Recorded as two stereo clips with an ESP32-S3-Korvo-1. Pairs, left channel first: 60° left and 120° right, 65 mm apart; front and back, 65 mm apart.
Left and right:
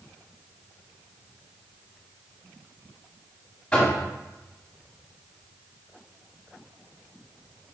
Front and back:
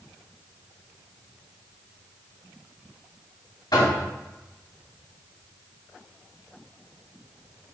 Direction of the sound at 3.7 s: 15° right.